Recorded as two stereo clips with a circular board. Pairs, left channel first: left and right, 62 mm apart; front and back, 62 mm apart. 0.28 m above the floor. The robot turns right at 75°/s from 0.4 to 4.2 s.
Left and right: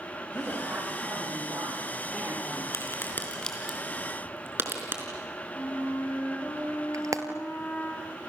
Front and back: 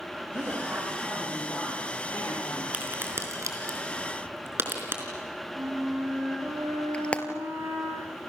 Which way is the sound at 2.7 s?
115° left.